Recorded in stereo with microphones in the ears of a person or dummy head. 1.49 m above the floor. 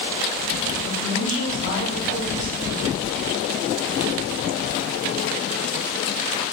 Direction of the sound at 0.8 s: 40° left (ahead or behind).